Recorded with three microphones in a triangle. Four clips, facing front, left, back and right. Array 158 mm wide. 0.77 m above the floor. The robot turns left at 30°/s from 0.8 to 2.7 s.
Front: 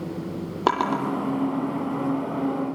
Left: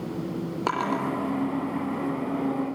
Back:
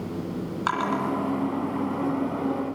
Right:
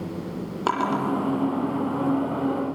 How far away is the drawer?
About 7 m.